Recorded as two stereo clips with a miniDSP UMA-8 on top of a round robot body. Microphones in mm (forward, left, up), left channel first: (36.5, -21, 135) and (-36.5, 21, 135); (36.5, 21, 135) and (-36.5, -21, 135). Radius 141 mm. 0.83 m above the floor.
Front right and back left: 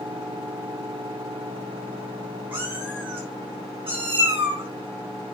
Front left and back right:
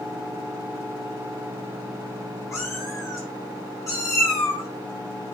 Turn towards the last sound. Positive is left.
turn(degrees=85)